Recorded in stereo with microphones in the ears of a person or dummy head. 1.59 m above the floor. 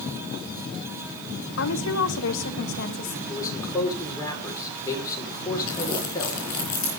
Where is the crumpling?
55° left (ahead or behind), 7 m.